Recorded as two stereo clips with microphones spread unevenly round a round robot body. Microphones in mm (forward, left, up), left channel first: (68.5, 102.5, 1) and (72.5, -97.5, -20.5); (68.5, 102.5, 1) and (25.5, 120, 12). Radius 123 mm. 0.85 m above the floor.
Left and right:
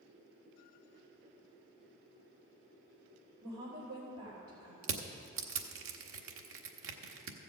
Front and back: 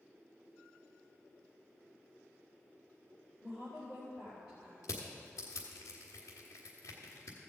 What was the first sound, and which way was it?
A woman speaking, 110° right.